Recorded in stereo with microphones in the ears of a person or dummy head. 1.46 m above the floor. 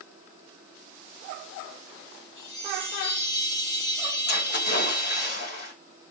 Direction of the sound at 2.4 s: 65° left (ahead or behind).